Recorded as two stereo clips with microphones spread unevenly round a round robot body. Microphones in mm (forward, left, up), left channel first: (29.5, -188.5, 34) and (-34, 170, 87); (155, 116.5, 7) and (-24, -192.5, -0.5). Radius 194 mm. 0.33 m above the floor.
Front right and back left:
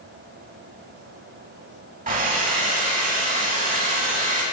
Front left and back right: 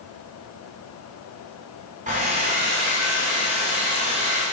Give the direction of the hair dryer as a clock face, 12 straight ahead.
6 o'clock.